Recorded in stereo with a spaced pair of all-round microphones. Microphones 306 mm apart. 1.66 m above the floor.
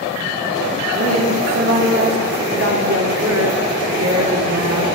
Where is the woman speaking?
50° right (ahead or behind), 1.4 m.